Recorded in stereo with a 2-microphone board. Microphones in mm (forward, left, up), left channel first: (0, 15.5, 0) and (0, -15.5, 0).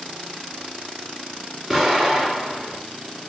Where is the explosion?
10° right (ahead or behind), 2.5 m.